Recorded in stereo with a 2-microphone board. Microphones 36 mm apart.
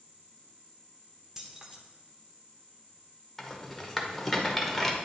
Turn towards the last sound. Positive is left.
turn(degrees=10)  # may be behind; listen again after turning